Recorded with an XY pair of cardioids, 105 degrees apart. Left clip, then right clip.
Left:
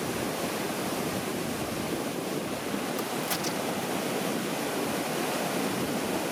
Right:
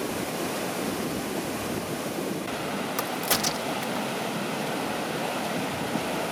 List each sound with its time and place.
3.0 s a crack: 55° right